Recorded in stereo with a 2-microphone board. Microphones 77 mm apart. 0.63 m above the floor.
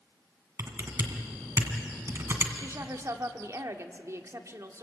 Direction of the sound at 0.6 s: 40° right (ahead or behind).